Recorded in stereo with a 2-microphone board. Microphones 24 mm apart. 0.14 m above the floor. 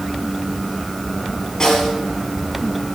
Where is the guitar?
No guitar in this recording.